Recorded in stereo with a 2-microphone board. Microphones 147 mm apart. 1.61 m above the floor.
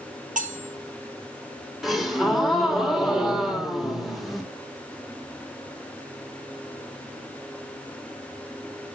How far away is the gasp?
About 2.5 m.